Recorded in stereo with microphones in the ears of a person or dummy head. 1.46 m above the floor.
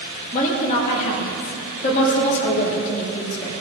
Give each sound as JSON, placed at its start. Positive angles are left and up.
{"t": 0.3, "sound": "a woman speaking", "side_deg": 40, "distance_m": 2.0}